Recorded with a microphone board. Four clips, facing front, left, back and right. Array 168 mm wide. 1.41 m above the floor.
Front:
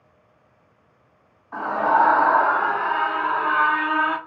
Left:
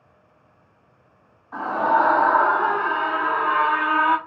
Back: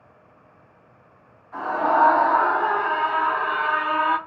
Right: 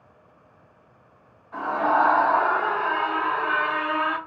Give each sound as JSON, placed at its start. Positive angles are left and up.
{"t": 1.5, "sound": "a scream", "azimuth_deg": 40, "distance_m": 2.0}